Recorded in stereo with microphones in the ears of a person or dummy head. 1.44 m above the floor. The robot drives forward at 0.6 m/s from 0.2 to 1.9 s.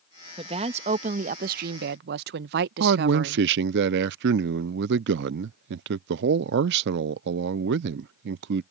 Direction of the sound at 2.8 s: 55° right (ahead or behind).